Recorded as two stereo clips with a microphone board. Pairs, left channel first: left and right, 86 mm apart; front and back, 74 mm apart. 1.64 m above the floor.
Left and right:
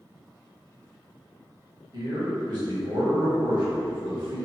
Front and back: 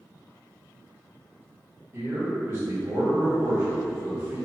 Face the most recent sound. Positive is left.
turn(degrees=-125)